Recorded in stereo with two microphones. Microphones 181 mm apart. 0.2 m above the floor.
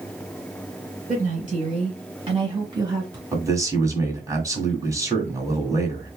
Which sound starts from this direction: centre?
A man speaking, at 3.3 s.